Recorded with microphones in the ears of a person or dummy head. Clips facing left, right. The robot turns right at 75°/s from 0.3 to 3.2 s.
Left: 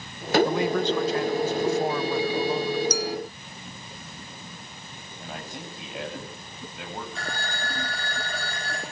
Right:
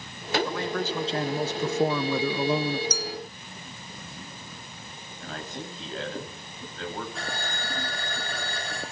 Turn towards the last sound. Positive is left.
turn(degrees=0)  # may be behind; listen again after turning